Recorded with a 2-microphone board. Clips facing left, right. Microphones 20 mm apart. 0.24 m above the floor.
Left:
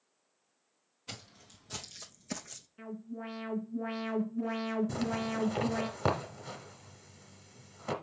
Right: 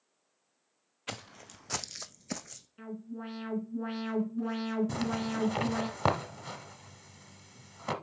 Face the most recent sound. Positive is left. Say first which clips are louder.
# right 1 dB
turn(degrees=-20)  # may be behind; listen again after turning